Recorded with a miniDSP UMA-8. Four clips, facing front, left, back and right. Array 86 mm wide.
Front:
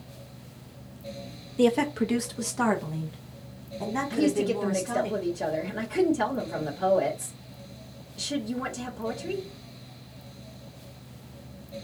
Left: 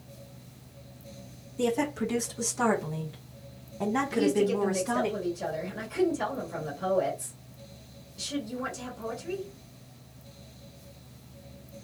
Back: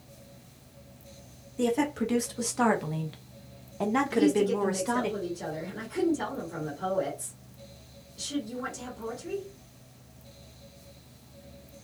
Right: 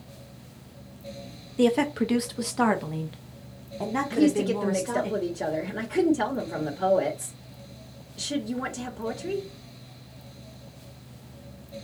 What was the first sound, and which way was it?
A woman speaking, 60° right.